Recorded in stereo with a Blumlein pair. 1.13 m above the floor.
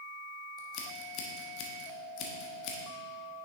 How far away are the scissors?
About 1.4 m.